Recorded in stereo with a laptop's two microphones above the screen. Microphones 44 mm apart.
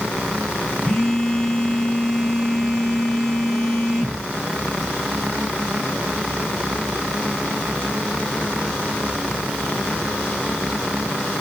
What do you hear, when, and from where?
0.8 s a phone buzzing: 15° left (ahead or behind), 0.7 m